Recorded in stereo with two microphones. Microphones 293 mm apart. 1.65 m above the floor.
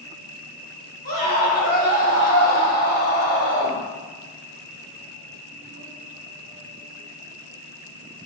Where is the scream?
65° right (ahead or behind), 1.6 m.